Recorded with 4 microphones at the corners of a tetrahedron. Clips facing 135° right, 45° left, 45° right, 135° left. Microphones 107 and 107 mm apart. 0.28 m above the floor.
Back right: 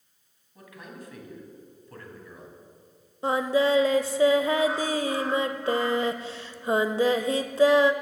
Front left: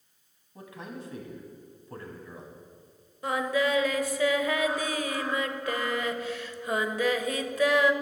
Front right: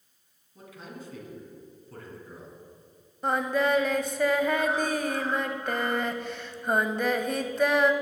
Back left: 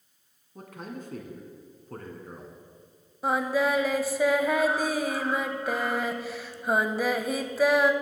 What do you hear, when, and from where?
0.6 s a man speaking: 105° left, 1.8 m
3.2 s singing: 150° right, 0.5 m